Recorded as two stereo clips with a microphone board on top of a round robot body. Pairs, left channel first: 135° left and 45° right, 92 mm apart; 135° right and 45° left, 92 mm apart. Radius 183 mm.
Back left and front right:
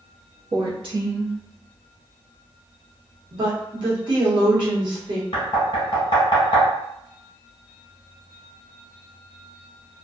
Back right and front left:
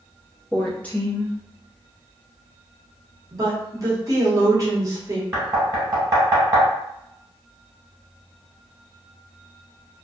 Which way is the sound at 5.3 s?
100° left.